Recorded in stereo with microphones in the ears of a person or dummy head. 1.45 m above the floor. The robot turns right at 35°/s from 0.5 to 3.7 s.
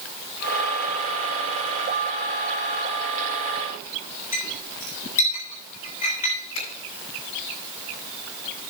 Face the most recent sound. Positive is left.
turn(degrees=85)